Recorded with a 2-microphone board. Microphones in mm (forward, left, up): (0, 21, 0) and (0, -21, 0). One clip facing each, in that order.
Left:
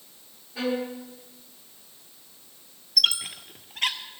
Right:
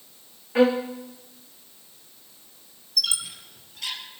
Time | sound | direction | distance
0.6 | a violin | 80° right | 3.5 m
3.0 | a squeak | 60° left (ahead or behind) | 1.7 m